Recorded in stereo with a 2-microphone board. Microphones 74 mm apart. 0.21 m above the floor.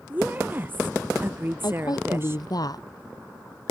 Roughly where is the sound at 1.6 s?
Left.